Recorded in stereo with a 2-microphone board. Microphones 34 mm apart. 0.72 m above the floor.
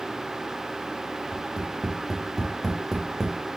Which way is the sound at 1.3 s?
5° right (ahead or behind).